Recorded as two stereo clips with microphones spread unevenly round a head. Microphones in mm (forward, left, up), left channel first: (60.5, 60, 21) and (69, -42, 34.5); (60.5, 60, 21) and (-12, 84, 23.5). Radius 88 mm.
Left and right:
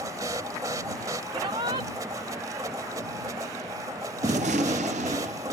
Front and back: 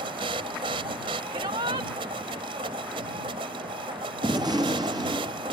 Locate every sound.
0.0 s a machine running: 155° right
1.3 s a shout: 150° right
4.2 s a gunshot: 130° right